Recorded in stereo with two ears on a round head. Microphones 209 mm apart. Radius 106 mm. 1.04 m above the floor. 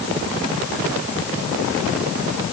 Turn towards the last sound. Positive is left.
No sound to turn to.